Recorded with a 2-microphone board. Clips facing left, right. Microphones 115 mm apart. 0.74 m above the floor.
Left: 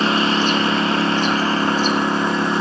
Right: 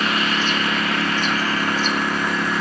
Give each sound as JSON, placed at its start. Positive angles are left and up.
{"t": 0.0, "sound": "a lawn mower", "side_deg": 30}